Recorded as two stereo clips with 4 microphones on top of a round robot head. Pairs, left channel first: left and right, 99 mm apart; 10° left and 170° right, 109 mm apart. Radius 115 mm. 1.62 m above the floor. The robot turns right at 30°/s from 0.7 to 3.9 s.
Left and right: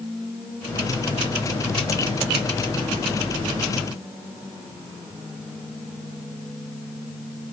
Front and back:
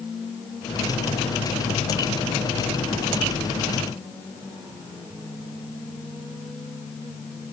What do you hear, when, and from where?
Only background noise.